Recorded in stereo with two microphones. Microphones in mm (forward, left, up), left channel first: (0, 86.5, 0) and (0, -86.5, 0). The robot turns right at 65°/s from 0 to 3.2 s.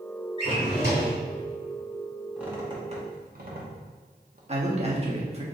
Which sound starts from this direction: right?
A man speaking, at 4.5 s.